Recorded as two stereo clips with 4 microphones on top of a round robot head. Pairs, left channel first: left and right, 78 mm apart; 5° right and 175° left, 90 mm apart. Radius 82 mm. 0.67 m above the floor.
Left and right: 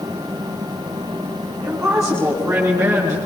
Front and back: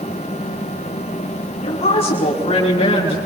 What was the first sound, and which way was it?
A woman speaking, 10° right.